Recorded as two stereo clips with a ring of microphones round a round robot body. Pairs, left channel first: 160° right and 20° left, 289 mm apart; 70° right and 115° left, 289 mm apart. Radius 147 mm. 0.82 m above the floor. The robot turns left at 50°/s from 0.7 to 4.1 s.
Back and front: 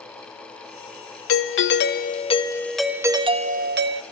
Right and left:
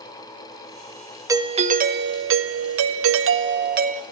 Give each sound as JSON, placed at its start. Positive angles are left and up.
{"t": 1.3, "sound": "a doorbell", "azimuth_deg": -170, "distance_m": 1.3}